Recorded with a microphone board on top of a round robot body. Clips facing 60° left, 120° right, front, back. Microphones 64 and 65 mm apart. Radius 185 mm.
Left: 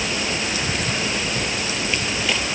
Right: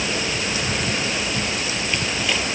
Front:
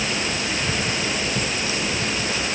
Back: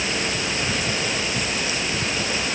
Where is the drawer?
I don't hear a drawer.